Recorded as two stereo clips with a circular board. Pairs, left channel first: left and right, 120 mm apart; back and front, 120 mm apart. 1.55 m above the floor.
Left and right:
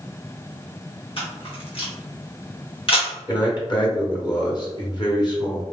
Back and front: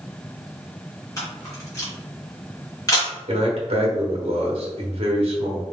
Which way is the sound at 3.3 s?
35° left.